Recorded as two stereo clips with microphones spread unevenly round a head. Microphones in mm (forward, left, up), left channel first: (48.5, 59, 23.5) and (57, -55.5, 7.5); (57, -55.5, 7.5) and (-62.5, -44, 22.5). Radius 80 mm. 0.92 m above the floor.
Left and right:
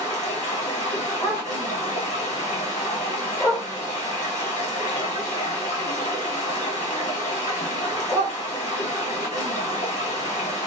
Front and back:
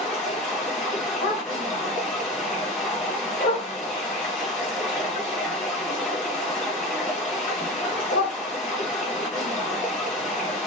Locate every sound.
0.0 s running water: 80° left, 1.3 m
1.2 s a dog barking: 30° left, 1.7 m